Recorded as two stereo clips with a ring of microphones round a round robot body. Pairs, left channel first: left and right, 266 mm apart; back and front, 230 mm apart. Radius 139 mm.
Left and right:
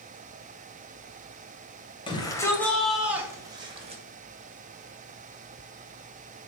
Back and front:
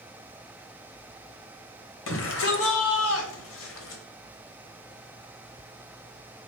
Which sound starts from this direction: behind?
A shout, at 2.1 s.